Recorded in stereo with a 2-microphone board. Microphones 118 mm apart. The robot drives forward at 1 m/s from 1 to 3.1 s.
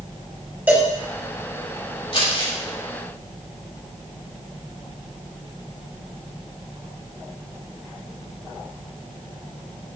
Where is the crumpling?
50° left (ahead or behind), 3 m; by 2.5 s 45° left (ahead or behind), 3 m.